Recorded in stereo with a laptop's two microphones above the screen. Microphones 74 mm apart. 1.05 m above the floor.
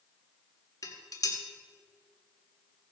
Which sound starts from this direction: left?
Dishes clattering, at 0.8 s.